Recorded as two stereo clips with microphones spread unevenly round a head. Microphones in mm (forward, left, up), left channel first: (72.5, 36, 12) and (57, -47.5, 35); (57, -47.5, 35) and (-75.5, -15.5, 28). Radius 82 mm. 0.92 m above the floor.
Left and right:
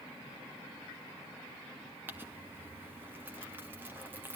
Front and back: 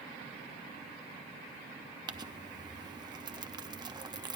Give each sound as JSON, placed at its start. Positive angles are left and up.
{"t": 2.1, "sound": "crumpling", "azimuth_deg": 180, "distance_m": 1.0}